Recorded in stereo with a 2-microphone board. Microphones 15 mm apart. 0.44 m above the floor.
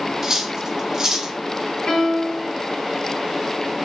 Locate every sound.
0.2 s cutlery clinking: 30° right (ahead or behind), 0.8 m
1.9 s a piano: 60° left (ahead or behind), 1.8 m